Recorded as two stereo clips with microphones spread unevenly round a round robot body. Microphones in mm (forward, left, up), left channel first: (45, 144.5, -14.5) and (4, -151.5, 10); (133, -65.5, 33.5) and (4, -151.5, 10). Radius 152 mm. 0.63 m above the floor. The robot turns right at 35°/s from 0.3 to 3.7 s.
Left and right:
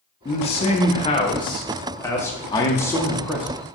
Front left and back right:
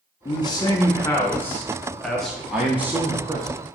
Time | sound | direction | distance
0.2 | a man speaking | 75° left | 0.6 m
2.5 | a man speaking | 140° left | 0.7 m